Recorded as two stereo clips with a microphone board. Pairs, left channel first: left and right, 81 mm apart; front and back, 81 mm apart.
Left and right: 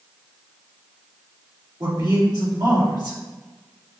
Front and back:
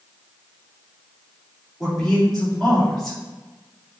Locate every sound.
1.8 s a man speaking: 80° right, 1.9 m